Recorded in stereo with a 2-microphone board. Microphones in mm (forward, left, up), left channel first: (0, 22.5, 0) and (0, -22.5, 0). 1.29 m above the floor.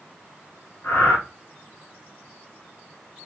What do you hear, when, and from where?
0.8 s breathing: 65° left (ahead or behind), 1.1 m